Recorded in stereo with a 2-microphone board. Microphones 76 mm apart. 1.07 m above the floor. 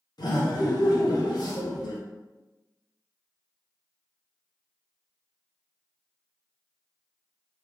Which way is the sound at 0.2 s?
60° left (ahead or behind).